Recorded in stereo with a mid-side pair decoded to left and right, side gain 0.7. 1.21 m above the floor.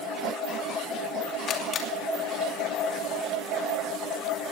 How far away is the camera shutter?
About 2.5 m.